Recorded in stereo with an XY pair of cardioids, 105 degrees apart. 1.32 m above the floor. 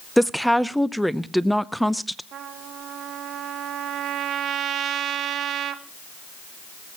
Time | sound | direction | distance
0.2 | a woman speaking | straight ahead | 0.6 m
2.3 | a trumpet | 65° right | 1.2 m